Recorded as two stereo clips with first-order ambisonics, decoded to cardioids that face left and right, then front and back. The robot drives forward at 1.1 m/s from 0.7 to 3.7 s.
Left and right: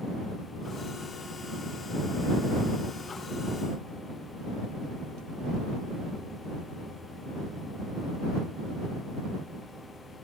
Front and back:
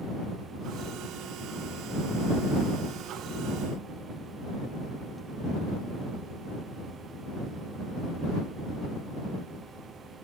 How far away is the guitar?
No guitar in this recording.